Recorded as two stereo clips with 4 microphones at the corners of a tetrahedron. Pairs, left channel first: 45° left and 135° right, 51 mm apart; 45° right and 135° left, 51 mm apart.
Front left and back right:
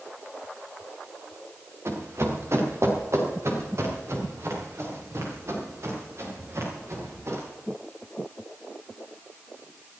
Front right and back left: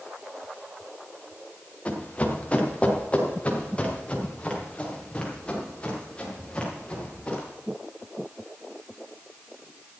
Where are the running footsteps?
105° right, 3.5 m; by 7.4 s 110° right, 7 m.